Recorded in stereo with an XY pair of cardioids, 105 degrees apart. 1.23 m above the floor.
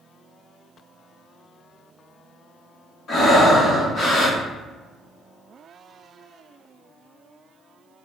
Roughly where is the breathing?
Ahead left.